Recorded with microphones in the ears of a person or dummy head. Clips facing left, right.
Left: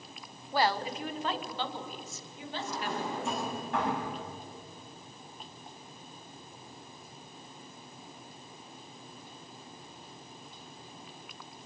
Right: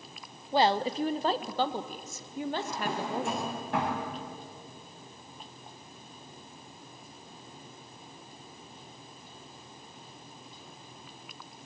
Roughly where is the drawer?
Right.